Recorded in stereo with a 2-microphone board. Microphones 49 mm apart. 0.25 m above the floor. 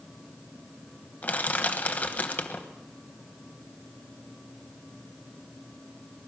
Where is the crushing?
35° left (ahead or behind), 1.1 m.